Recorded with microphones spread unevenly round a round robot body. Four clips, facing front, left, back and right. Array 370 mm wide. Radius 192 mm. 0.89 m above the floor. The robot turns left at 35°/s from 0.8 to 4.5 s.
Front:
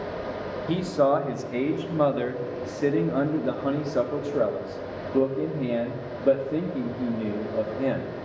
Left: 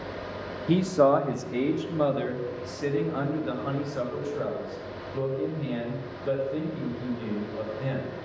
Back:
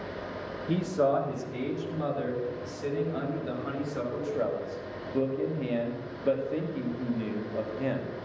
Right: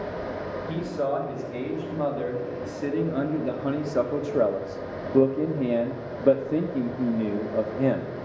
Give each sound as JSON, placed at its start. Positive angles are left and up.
{"t": 0.7, "sound": "a man speaking", "azimuth_deg": 65, "distance_m": 1.6}